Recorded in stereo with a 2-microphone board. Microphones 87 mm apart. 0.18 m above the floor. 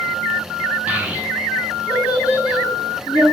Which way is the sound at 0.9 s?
20° right (ahead or behind).